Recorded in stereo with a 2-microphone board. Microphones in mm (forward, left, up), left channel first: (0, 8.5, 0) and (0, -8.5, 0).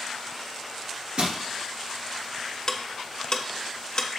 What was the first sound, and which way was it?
Crushing, 80° right.